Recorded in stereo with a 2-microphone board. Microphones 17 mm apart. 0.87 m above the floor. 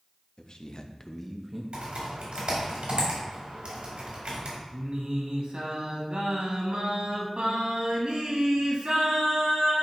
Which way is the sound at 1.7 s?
75° right (ahead or behind).